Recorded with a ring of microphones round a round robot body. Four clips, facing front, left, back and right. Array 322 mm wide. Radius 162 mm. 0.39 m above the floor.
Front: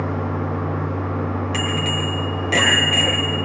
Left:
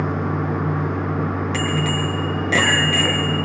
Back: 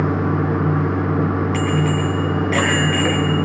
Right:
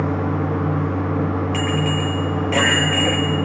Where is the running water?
165° left, 1.2 m.